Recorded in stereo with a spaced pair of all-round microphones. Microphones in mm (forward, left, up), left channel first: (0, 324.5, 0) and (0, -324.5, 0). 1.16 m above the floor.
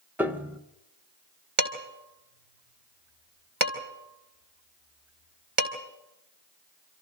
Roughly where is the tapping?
No tapping in this recording.